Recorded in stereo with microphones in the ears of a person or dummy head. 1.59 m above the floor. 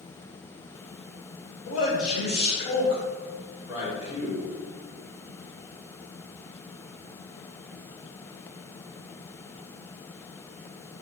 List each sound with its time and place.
1.7 s a man speaking: 50° left (ahead or behind), 0.9 m; by 4.5 s 20° left (ahead or behind), 2 m